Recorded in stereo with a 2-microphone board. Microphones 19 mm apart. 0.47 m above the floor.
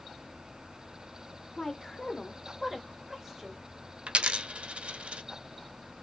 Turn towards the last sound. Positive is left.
turn(degrees=-75)  # may be behind; listen again after turning